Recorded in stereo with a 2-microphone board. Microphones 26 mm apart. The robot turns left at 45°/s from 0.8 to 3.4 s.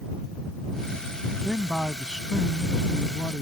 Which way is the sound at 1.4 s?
175° right.